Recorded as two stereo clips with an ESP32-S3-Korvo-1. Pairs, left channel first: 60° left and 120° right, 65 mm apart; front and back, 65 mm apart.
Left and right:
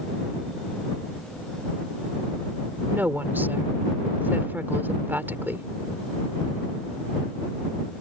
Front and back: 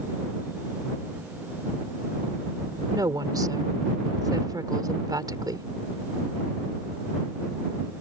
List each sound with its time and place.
2.9 s a woman speaking: straight behind